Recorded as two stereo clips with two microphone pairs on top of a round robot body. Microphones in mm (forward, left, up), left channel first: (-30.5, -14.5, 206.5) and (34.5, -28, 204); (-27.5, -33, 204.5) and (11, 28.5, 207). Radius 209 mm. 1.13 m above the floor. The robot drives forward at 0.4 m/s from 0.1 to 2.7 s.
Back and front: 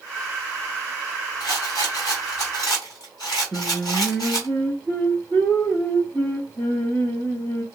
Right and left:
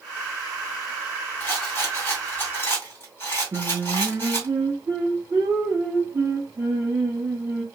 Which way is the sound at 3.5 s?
110° left.